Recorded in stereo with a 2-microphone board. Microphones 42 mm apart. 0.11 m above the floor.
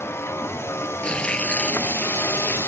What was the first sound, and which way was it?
A vehicle, 85° left.